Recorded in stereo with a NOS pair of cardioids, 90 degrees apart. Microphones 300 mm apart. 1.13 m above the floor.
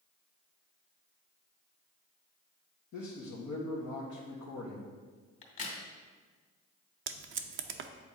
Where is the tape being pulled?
45° right, 0.6 m.